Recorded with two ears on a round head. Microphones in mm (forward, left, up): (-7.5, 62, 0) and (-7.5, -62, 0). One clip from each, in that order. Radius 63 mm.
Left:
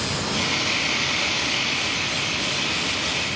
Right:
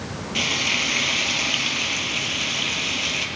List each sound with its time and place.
0.3 s frying: 70° right (ahead or behind), 4 m